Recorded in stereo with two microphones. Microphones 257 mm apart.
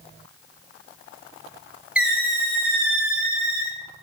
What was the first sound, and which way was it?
A squeak, 5° right (ahead or behind).